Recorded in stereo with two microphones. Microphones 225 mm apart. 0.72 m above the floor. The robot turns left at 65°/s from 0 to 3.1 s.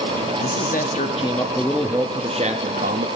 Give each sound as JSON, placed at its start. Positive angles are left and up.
{"t": 0.4, "sound": "a man speaking", "azimuth_deg": 85, "distance_m": 0.9}